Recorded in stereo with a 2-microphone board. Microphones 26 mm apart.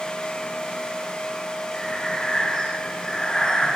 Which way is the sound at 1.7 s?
20° left (ahead or behind).